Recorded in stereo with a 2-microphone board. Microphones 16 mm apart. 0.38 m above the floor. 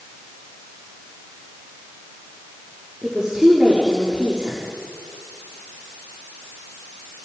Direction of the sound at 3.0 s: 70° right (ahead or behind).